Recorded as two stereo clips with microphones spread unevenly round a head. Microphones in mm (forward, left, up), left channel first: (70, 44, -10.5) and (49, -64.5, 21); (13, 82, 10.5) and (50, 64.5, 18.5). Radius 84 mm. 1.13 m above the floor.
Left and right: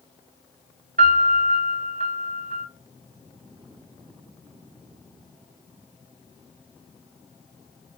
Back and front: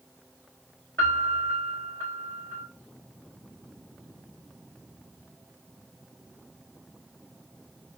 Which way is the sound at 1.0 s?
130° right.